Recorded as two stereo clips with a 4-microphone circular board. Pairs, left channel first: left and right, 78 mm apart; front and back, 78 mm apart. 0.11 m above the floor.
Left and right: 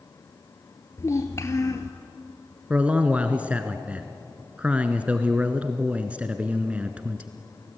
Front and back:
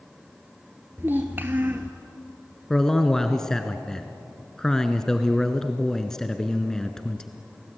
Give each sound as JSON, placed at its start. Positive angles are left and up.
{"t": 1.0, "sound": "a child speaking", "azimuth_deg": 125, "distance_m": 1.0}
{"t": 2.7, "sound": "a man speaking", "azimuth_deg": -65, "distance_m": 1.1}